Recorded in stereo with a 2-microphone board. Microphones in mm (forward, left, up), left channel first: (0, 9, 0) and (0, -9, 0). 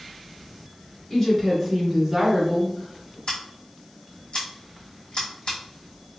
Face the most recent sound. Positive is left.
turn(degrees=55)  # may be behind; listen again after turning